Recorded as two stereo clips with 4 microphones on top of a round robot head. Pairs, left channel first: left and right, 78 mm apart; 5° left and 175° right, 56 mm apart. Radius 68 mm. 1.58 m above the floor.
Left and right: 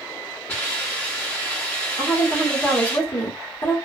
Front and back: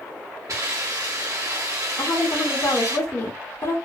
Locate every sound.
0.5 s a hiss: 155° left, 0.8 m
2.0 s a woman speaking: 45° left, 1.2 m